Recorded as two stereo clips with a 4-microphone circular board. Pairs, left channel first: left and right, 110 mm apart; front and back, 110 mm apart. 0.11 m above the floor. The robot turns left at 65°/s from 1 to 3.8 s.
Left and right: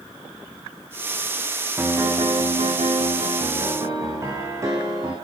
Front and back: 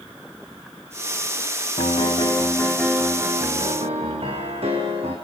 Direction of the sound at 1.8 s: 20° right.